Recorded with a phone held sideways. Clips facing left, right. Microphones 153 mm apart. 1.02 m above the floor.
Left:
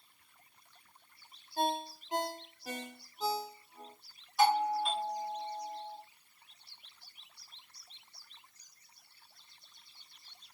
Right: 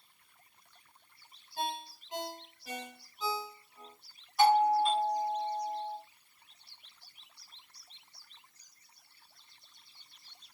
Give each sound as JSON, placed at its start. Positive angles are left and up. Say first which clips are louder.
{"t": 1.6, "sound": "a ringtone", "louder": "left 5 dB", "side_deg": 50, "distance_m": 0.7}
{"t": 4.4, "sound": "a doorbell", "louder": "right 4 dB", "side_deg": 5, "distance_m": 1.6}